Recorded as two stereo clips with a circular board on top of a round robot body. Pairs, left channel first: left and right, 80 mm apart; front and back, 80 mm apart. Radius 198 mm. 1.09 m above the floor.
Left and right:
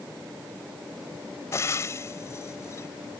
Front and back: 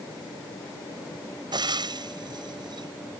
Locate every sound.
1.5 s frying: 150° left